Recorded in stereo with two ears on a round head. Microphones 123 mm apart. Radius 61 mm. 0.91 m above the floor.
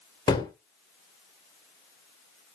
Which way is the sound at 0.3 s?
30° left (ahead or behind).